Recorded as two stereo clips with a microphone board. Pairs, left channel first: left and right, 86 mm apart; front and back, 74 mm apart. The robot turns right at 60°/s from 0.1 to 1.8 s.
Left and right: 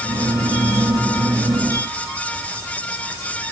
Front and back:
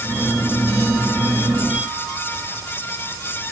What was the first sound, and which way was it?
Only background noise.